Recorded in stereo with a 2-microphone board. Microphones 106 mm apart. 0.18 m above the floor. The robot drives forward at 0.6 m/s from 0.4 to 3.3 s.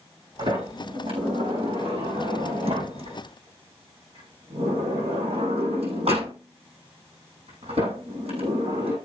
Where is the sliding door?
60° right (ahead or behind), 6 m; by 9.0 s 75° right (ahead or behind), 5.5 m.